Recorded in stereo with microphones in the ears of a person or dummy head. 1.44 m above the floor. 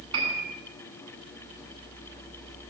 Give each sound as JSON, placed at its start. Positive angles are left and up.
{"t": 0.1, "sound": "a piano", "side_deg": -25, "distance_m": 9.5}